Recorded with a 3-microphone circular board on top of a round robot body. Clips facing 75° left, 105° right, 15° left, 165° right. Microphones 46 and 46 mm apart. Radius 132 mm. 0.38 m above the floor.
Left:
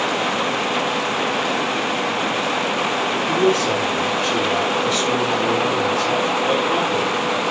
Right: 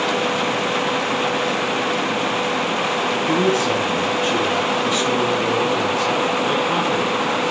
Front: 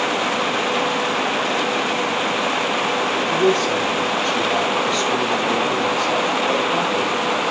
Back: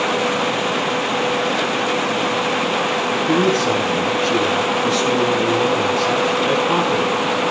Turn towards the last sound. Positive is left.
turn(degrees=-175)